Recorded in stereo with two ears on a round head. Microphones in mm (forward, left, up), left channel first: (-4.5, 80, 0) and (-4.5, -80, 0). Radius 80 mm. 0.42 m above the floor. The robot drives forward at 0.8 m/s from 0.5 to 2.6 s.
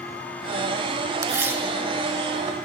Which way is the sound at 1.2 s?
15° right (ahead or behind).